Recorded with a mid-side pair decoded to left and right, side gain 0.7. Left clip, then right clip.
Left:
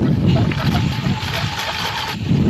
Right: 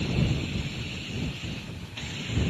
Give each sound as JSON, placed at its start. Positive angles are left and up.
{"t": 0.0, "sound": "a lawn mower", "azimuth_deg": 65}